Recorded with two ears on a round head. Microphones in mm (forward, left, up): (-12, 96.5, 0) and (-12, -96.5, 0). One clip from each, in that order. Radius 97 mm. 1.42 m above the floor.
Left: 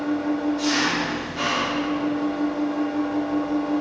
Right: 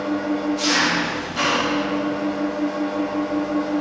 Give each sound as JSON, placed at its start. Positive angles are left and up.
{"t": 0.0, "sound": "an engine running", "side_deg": -40, "distance_m": 2.5}